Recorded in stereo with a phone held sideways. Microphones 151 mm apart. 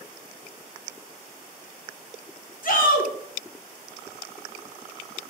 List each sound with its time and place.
2.6 s a shout: 60° left (ahead or behind), 1.0 m